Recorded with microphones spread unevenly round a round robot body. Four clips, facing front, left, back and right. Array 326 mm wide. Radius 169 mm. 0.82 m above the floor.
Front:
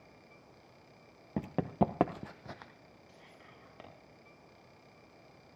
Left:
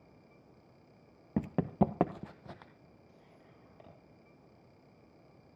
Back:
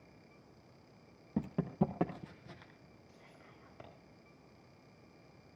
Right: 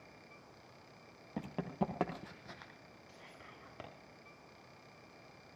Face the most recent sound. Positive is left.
turn(degrees=-75)